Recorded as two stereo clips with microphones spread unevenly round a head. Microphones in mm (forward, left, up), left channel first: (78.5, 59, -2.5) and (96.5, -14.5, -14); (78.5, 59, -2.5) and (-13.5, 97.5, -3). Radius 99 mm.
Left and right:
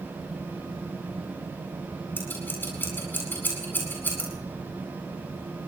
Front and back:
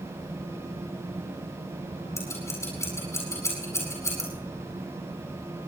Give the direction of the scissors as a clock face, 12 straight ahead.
11 o'clock.